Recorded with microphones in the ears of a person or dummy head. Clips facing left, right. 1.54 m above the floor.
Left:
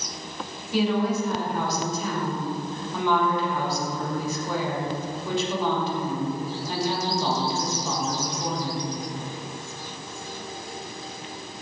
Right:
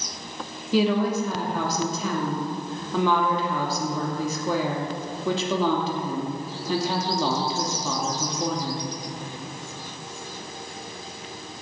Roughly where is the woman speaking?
Right.